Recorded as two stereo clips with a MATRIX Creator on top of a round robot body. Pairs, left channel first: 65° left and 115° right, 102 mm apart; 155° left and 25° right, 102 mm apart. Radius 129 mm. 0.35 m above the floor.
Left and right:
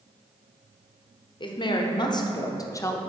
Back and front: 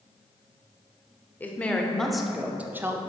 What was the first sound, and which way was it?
A woman speaking, 85° left.